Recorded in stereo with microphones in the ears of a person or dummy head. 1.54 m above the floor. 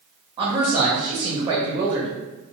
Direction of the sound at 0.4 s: 25° right (ahead or behind).